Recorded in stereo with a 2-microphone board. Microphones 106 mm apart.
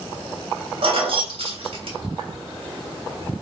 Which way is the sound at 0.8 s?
60° right (ahead or behind).